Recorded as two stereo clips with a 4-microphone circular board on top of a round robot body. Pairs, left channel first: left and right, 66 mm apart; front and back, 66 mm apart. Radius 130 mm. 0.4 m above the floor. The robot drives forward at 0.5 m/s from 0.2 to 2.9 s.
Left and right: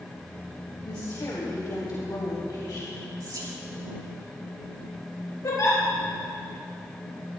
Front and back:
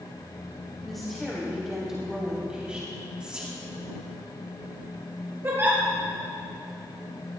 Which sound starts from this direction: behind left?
A giggle, at 5.4 s.